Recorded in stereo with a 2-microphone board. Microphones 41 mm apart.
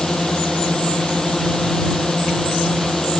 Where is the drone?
15° left (ahead or behind); by 3.2 s 10° left (ahead or behind).